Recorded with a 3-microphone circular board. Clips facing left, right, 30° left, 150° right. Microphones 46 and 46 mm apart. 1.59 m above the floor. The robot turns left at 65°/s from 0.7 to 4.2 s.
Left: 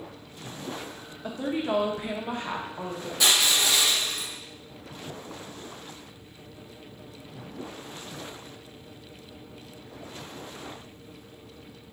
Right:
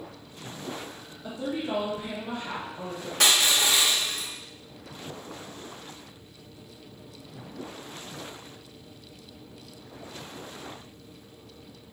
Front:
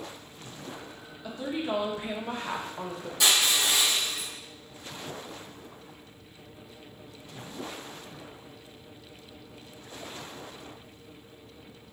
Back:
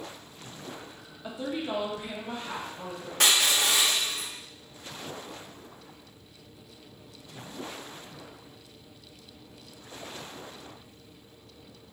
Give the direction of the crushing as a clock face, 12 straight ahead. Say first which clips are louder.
Right 1 dB, back 1 dB; 4 o'clock.